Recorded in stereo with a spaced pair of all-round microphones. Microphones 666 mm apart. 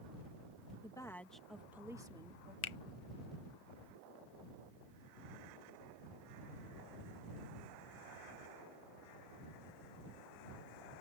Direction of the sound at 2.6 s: 50° left (ahead or behind).